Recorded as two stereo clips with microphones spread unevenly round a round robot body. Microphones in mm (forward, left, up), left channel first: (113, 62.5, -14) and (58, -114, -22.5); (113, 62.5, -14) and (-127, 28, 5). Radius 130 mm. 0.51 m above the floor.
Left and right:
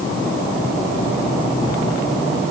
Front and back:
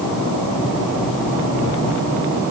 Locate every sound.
Only background noise.